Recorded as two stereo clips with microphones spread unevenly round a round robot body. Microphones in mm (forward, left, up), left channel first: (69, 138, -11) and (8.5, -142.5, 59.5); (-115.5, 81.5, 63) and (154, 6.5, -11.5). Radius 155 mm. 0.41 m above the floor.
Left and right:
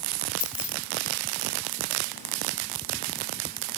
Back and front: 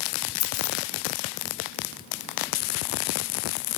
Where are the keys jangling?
140° left, 1.7 m.